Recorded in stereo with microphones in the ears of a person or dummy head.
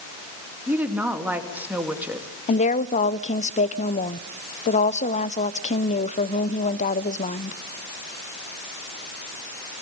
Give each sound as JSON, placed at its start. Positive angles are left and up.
{"t": 0.7, "sound": "a woman speaking", "side_deg": -10, "distance_m": 2.5}
{"t": 2.5, "sound": "a woman speaking", "side_deg": 40, "distance_m": 0.9}